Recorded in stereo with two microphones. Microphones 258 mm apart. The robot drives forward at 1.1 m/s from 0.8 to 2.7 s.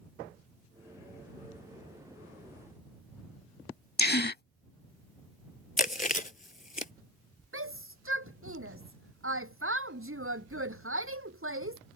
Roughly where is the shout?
Right.